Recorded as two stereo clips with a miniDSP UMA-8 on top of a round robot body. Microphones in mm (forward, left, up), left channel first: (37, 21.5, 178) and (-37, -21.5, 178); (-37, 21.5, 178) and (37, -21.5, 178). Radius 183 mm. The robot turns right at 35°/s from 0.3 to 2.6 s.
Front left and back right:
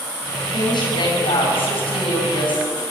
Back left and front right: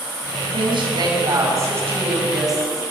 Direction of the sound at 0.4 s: 15° right.